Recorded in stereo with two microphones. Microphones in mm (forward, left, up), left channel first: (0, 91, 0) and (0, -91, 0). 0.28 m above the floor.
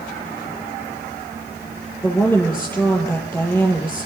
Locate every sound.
2.0 s a woman speaking: 10° left (ahead or behind), 9 m